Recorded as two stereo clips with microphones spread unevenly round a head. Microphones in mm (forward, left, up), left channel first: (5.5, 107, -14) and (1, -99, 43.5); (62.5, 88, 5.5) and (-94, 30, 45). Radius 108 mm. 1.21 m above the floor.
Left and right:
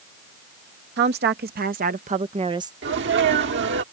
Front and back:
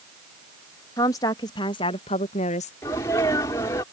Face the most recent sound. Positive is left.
turn(degrees=-55)